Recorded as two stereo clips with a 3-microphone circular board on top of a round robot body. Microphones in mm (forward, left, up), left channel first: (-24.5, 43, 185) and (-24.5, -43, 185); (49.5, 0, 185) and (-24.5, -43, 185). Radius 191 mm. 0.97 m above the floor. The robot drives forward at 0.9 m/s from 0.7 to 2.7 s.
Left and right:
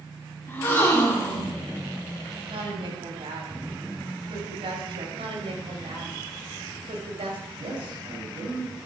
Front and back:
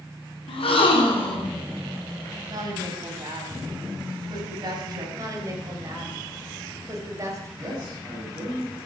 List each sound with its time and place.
0.5 s a gasp: 20° left, 3.5 m; by 1.5 s 25° left, 3 m
2.5 s a woman speaking: 105° right, 6 m
5.2 s a woman speaking: 95° right, 5 m
7.6 s a man speaking: 90° right, 7 m